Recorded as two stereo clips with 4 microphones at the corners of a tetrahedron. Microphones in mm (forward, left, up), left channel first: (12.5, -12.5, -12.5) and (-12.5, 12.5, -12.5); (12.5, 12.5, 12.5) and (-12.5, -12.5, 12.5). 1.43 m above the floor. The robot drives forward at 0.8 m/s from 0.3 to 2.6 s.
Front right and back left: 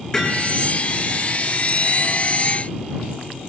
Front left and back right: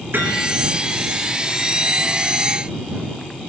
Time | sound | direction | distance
0.1 | hammering | 110° right | 8.5 m